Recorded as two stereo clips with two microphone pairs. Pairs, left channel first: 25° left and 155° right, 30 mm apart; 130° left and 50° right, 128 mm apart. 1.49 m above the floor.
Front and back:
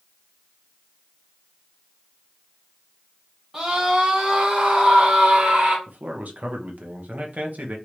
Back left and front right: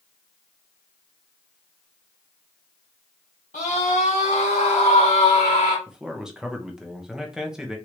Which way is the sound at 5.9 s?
135° right.